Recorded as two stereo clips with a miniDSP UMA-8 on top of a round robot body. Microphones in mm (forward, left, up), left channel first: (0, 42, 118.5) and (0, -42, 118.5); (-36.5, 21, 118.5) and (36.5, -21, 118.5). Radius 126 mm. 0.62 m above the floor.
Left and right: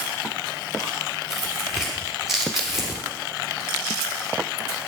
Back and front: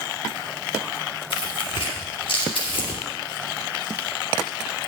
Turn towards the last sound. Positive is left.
turn(degrees=-175)